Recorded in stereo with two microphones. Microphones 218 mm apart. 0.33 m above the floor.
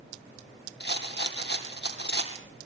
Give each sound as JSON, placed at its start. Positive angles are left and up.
{"t": 0.8, "sound": "a rattle", "side_deg": 50, "distance_m": 3.0}